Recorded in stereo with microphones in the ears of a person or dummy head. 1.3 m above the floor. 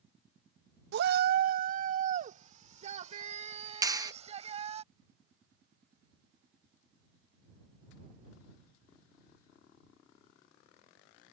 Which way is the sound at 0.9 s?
65° right (ahead or behind).